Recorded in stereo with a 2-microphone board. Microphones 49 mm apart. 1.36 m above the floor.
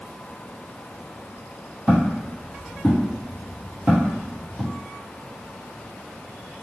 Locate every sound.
1.9 s footsteps: 25° right (ahead or behind), 2.0 m